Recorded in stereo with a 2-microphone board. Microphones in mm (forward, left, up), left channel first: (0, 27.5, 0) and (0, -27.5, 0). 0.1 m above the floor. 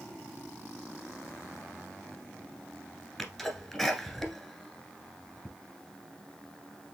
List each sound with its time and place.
3.2 s a sneeze: 5° left (ahead or behind), 1.5 m